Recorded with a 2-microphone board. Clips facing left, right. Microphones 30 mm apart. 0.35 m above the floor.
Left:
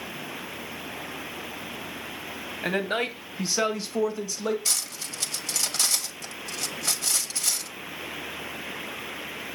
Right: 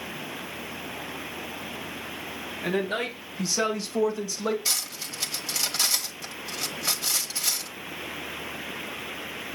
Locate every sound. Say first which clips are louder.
2.6 s a man speaking: left 1 dB; 55° left (ahead or behind), 1.8 m; by 4.5 s 5° left (ahead or behind), 1.5 m
4.7 s cutlery clinking: right 1 dB; 15° right (ahead or behind), 1.2 m